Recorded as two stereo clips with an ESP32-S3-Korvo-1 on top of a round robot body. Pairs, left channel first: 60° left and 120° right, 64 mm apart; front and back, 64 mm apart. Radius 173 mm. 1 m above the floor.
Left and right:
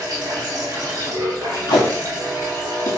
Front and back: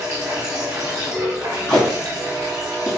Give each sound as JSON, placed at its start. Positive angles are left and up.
{"t": 0.0, "sound": "running water", "azimuth_deg": -145, "distance_m": 0.9}
{"t": 1.7, "sound": "tape being pulled", "azimuth_deg": 65, "distance_m": 0.8}